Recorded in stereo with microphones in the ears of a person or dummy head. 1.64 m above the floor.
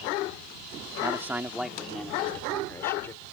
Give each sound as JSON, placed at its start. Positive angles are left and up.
{"t": 1.0, "sound": "a man speaking", "side_deg": -10}